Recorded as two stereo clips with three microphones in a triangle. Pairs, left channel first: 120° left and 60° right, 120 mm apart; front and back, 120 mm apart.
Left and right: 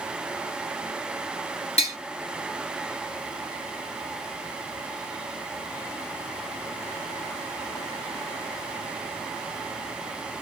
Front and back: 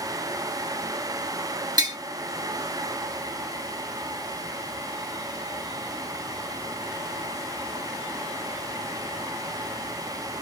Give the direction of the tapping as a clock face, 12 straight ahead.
8 o'clock.